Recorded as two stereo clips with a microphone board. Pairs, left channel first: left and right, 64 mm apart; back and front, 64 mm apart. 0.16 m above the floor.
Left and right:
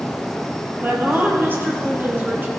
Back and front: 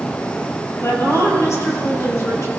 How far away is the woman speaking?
About 4 m.